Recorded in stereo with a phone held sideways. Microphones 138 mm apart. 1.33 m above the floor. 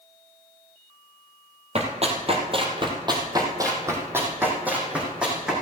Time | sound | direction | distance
1.8 | running footsteps | 55° right (ahead or behind) | 2 m